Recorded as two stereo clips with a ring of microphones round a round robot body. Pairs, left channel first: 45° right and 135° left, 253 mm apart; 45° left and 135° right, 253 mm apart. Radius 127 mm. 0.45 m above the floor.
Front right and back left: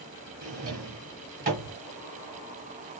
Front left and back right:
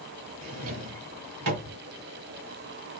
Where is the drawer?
165° right, 1.3 m.